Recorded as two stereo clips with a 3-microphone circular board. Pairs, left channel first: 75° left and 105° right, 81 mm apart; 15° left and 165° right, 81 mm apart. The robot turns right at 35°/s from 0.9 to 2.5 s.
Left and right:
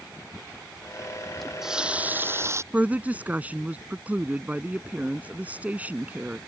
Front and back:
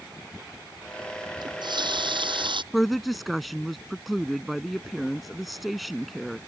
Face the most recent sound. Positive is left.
turn(degrees=-75)